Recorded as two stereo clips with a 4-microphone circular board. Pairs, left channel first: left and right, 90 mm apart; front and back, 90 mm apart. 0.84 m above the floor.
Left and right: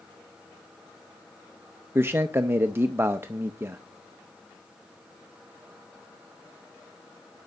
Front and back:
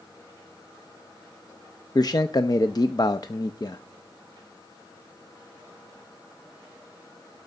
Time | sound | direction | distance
1.9 | a man speaking | 30° right | 0.5 m